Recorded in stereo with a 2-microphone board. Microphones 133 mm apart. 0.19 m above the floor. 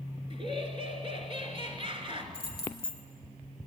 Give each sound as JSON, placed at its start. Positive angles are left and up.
{"t": 0.3, "sound": "laughter", "side_deg": -40, "distance_m": 2.5}
{"t": 2.3, "sound": "keys jangling", "side_deg": -45, "distance_m": 2.5}